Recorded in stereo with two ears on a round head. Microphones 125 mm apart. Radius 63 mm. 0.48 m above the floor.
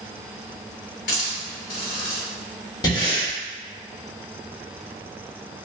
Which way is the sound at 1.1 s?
85° left.